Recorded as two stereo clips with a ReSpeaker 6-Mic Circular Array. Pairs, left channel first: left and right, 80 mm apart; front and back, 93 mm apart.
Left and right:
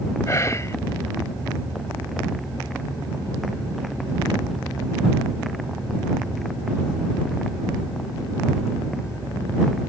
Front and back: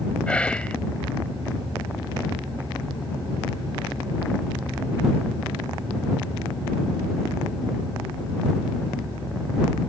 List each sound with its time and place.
0.3 s whispering: 70° left